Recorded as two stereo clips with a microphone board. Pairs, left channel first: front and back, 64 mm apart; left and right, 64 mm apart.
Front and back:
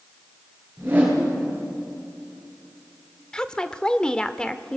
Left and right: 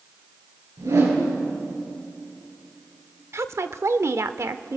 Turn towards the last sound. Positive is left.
turn(degrees=-75)